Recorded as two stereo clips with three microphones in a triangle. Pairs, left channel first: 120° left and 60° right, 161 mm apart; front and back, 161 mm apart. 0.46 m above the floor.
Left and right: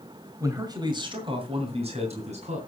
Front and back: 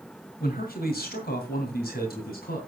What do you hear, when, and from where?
0.4 s a man speaking: 10° left, 2.0 m; by 2.6 s 15° right, 3 m